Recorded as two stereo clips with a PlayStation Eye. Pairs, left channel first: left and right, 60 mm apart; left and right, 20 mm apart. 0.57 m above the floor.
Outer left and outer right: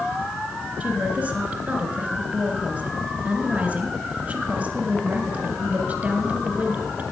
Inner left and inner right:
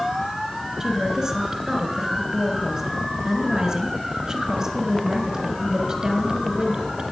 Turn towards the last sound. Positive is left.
turn(degrees=-30)  # may be behind; listen again after turning